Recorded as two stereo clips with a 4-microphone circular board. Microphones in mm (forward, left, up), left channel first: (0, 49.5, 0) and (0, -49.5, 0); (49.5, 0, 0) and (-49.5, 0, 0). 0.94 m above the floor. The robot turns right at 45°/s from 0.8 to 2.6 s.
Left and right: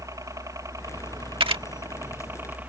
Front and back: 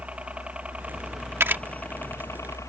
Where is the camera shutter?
115° right; by 1.6 s 105° right.